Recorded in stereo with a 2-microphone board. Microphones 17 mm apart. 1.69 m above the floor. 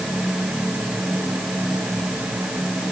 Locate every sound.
Only background noise.